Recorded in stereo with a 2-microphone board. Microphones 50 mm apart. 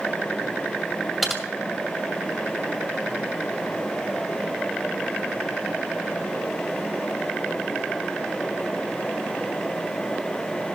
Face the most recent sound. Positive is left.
turn(degrees=0)  # may be behind; listen again after turning